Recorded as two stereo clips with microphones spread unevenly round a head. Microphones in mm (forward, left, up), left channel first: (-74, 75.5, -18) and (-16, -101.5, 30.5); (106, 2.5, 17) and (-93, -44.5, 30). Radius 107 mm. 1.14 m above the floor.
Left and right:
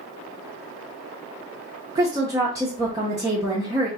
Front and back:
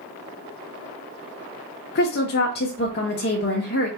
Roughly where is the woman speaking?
Ahead.